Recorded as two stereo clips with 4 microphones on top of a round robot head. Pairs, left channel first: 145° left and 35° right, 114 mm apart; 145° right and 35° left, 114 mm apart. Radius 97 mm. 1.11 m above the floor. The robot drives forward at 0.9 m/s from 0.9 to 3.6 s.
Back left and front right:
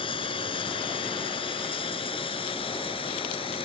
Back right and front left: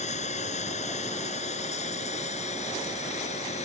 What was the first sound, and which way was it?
Running water, 170° right.